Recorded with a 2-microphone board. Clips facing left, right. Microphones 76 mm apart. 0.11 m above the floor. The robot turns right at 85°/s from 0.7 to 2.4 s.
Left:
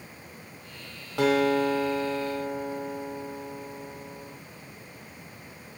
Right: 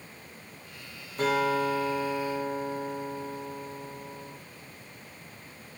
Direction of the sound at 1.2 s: 90° left.